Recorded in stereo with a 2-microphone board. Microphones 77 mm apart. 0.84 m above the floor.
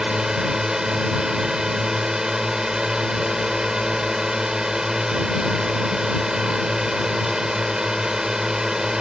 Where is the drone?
5° right (ahead or behind).